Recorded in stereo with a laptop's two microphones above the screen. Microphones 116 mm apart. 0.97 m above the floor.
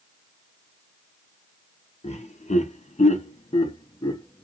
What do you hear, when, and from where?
2.0 s laughter: 65° left (ahead or behind), 0.9 m; by 4.5 s 30° left (ahead or behind), 1.1 m